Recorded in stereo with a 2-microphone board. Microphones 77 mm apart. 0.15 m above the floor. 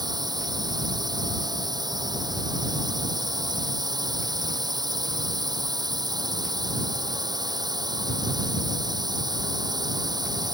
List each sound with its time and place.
0.0 s a drone: 60° right (ahead or behind)